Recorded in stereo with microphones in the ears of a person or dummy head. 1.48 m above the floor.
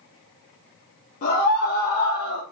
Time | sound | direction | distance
1.2 | a scream | 45° left (ahead or behind) | 2 m